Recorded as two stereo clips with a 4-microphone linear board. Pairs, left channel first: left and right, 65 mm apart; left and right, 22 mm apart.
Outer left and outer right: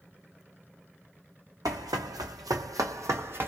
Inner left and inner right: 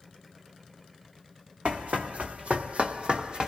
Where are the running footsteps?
75° right (ahead or behind), 1.0 m; by 3.5 s 35° right (ahead or behind), 0.8 m.